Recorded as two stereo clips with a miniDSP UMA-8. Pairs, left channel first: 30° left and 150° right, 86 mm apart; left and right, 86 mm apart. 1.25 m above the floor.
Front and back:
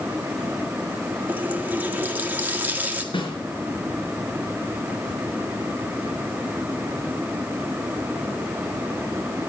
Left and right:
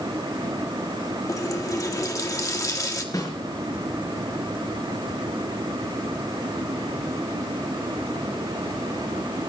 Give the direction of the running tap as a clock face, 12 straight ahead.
7 o'clock.